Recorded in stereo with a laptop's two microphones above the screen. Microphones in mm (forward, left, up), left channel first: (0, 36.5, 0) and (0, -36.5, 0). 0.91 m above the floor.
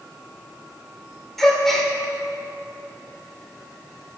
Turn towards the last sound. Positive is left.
turn(degrees=5)  # may be behind; listen again after turning